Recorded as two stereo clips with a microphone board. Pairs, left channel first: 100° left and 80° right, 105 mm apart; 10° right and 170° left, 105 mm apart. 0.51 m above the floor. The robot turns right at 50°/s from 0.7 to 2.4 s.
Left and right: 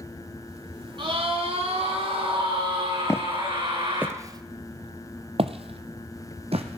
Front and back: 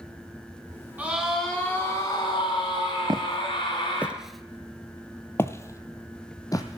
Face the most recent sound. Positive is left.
turn(degrees=-65)